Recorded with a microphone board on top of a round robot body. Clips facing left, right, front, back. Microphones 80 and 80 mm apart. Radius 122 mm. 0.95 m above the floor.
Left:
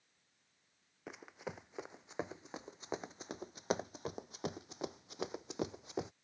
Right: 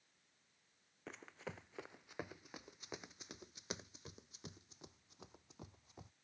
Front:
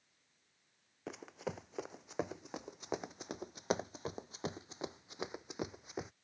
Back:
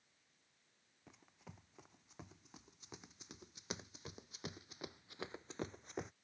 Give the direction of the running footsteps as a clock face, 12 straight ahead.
12 o'clock.